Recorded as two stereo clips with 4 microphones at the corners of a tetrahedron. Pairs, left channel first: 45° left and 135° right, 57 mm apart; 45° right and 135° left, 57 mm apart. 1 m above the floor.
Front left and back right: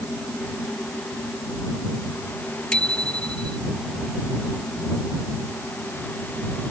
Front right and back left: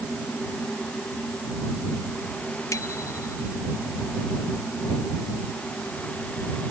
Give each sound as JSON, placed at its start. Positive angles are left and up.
{"t": 2.7, "sound": "a bicycle bell", "azimuth_deg": -25}